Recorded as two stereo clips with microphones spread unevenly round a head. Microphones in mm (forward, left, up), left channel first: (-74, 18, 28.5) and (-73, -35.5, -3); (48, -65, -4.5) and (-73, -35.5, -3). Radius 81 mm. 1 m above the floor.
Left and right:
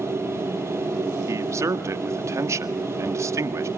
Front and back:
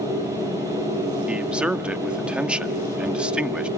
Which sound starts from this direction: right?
A man speaking, at 1.3 s.